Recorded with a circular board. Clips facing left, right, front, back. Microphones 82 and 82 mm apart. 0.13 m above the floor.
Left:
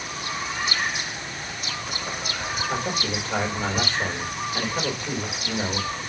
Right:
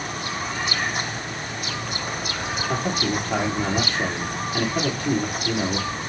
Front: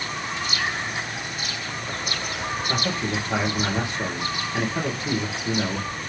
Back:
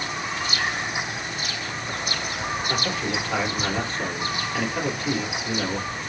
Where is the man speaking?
70° right, 3.5 m.